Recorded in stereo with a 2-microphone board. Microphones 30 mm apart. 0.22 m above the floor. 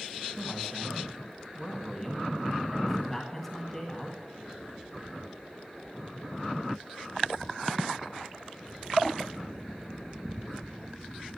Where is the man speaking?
10° left (ahead or behind), 2 m.